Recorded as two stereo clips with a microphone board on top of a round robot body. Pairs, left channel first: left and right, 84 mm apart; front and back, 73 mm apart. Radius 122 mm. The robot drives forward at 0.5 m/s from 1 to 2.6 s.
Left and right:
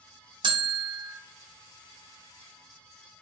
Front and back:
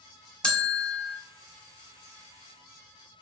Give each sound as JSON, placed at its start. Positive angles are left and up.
{"t": 0.4, "sound": "a bell", "azimuth_deg": -80, "distance_m": 0.8}